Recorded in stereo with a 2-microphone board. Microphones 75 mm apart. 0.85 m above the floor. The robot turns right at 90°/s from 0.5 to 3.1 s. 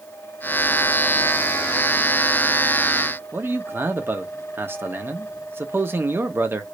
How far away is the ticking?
I don't hear ticking.